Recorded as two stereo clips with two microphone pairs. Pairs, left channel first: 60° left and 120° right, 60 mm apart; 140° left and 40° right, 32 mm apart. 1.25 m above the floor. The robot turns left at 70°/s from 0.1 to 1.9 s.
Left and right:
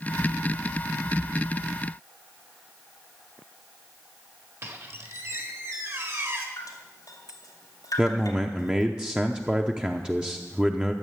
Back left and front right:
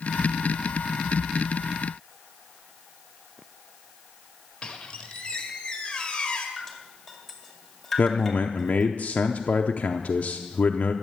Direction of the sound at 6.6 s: 45° left.